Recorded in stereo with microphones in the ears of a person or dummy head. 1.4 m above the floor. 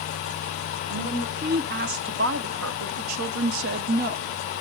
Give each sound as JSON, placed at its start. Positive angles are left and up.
{"t": 0.9, "sound": "a woman speaking", "side_deg": -35, "distance_m": 1.6}